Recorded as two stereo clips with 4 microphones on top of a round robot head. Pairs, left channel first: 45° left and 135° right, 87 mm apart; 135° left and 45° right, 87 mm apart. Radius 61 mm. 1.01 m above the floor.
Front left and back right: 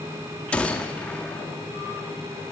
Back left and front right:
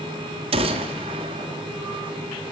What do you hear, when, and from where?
0.5 s a gunshot: 30° right, 1.7 m